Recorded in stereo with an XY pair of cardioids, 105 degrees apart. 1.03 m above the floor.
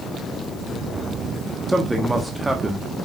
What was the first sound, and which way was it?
A man speaking, 10° right.